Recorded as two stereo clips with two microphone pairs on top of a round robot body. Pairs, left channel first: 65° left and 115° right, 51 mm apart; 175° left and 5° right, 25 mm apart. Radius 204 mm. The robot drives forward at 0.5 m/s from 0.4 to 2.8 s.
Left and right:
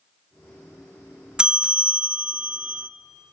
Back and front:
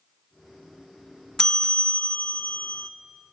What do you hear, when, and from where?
1.4 s a bell: 150° right, 0.6 m; by 2.9 s 175° right, 1.0 m